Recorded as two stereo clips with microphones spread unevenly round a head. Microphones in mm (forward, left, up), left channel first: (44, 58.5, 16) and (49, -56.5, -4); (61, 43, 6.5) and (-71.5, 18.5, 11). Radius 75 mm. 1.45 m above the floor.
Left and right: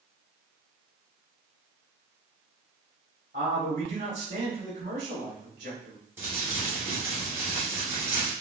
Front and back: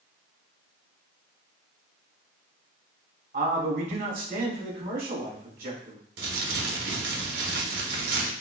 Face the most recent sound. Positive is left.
turn(degrees=-165)